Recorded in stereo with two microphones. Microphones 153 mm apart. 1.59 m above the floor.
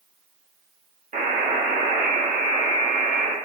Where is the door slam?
I don't hear a door slam.